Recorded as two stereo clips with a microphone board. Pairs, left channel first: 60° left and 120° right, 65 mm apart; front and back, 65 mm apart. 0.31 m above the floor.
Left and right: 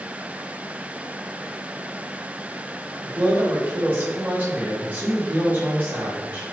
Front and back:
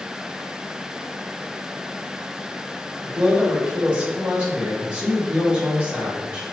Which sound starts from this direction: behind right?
A man speaking, at 3.0 s.